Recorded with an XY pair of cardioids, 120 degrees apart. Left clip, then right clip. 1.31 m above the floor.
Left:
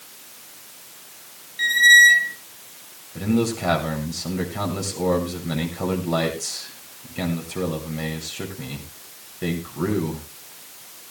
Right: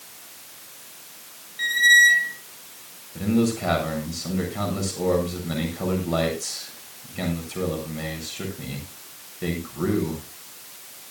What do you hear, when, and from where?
1.6 s a squeak: 20° left, 1.1 m
3.1 s a man speaking: 10° left, 8 m